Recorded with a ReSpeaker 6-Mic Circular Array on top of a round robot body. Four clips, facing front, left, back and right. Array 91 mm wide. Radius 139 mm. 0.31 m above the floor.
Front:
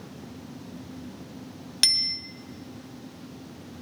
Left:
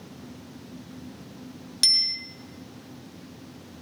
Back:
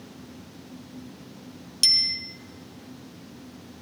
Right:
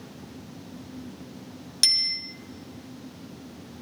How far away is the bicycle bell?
About 2 m.